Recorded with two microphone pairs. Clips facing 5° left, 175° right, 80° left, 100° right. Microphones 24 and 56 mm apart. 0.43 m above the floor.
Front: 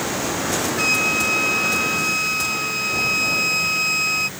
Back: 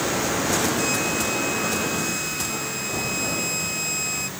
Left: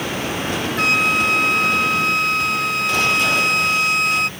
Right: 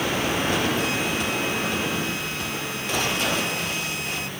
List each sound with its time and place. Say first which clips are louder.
0.8 s a flute: front 5 dB, left 8 dB; 60° left